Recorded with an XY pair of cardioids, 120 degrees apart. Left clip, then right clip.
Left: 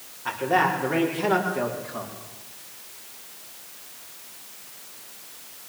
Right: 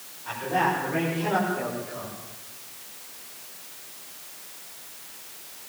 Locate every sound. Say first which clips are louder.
0.2 s a man speaking: left 3 dB; 70° left, 6 m; by 2.1 s 55° left, 5.5 m